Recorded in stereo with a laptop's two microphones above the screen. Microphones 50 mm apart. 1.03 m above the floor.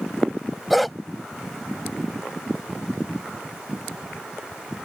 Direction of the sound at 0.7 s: Centre (ahead or behind).